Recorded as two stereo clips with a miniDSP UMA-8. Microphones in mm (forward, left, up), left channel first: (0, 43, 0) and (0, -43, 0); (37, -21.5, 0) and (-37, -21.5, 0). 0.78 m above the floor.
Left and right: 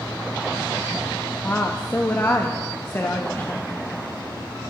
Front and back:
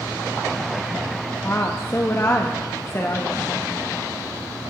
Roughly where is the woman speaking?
Ahead left.